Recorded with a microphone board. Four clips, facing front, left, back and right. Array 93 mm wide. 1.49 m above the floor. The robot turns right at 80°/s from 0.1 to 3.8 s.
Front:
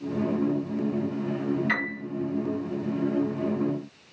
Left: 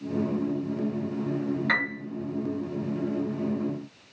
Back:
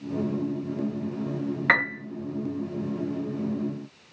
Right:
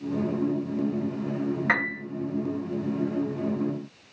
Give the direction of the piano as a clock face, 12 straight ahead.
5 o'clock.